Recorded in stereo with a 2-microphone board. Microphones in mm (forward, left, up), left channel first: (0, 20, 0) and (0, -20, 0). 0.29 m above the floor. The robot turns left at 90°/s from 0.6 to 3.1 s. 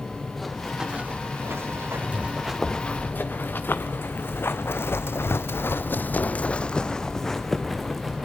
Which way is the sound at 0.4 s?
5° left (ahead or behind).